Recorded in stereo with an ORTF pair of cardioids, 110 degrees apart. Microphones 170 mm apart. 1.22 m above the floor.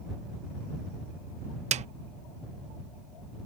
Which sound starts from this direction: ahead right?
A snare drum, at 1.7 s.